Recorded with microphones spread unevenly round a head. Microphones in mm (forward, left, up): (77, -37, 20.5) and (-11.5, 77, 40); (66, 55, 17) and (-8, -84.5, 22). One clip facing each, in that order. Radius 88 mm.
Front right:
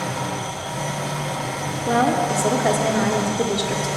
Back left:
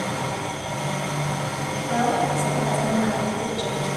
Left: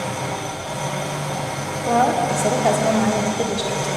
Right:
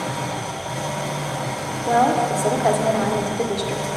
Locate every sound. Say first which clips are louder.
0.0 s an engine running: front right 1 dB, left 1 dB; 10° right, 3.5 m
1.9 s a woman speaking: front right 3 dB, even; 30° right, 1.1 m